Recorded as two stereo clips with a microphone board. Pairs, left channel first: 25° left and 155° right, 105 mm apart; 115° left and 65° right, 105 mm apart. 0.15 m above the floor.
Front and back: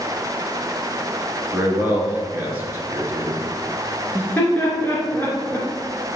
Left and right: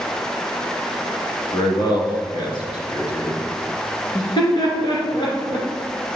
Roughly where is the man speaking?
Behind left.